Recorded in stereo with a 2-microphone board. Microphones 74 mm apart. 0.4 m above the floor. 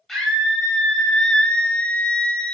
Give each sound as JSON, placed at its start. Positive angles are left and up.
{"t": 0.1, "sound": "a scream", "side_deg": 5, "distance_m": 2.0}